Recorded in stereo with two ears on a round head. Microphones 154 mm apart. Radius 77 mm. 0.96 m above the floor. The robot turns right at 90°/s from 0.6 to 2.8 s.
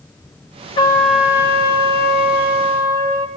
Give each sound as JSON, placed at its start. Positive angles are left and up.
{"t": 0.8, "sound": "a trumpet", "azimuth_deg": 145, "distance_m": 1.5}